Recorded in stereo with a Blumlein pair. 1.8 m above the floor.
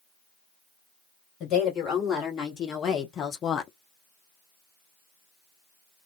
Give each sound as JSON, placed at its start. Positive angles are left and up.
{"t": 1.4, "sound": "a woman speaking", "azimuth_deg": 30, "distance_m": 1.9}